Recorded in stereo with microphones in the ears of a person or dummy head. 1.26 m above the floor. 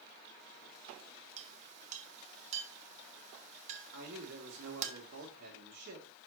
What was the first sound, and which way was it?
A clink, 40° right (ahead or behind).